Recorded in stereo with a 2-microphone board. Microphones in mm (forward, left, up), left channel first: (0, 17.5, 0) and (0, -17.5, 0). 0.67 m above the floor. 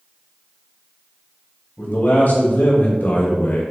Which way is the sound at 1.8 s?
70° left (ahead or behind).